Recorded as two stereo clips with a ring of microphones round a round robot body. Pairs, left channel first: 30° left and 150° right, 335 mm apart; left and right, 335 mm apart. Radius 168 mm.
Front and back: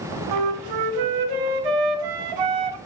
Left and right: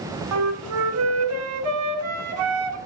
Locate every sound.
0.3 s a flute: 135° right, 0.9 m